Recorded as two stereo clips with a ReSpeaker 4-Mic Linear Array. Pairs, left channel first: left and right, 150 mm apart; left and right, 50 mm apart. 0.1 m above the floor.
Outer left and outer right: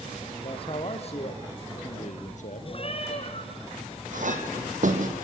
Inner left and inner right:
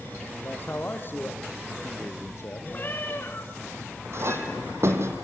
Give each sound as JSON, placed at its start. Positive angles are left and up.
{"t": 0.4, "sound": "a man speaking", "side_deg": 35, "distance_m": 3.0}
{"t": 2.7, "sound": "a cat meowing", "side_deg": 40, "distance_m": 4.0}
{"t": 4.1, "sound": "a clink", "side_deg": -55, "distance_m": 3.0}